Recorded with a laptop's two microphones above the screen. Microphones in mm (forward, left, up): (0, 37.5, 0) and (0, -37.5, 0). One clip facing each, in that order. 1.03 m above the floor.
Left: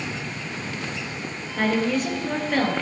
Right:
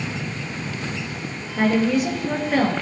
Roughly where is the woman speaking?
Centre.